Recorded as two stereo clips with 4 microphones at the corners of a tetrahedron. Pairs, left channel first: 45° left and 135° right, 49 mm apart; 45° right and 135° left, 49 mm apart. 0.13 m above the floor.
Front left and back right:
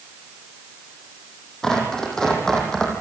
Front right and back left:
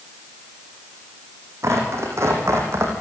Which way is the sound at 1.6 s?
125° left.